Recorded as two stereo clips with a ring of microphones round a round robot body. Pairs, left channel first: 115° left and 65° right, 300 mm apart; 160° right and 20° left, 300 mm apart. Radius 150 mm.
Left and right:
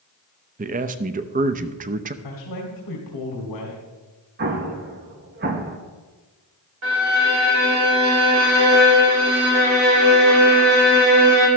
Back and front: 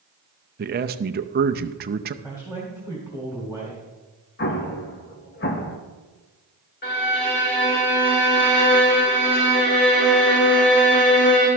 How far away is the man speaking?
About 0.6 m.